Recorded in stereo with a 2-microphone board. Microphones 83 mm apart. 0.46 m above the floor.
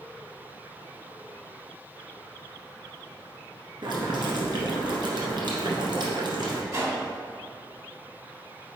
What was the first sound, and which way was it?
Boiling, 60° right (ahead or behind).